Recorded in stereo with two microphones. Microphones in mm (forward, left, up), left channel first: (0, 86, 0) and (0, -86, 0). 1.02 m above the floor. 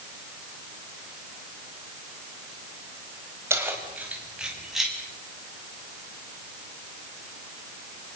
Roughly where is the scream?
I don't hear a scream.